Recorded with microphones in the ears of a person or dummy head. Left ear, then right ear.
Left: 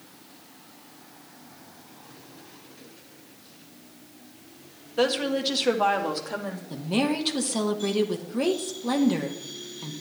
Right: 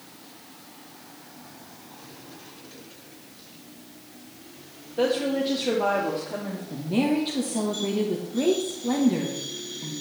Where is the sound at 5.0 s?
50° left (ahead or behind), 1.6 m; by 6.6 s 70° left (ahead or behind), 2.5 m.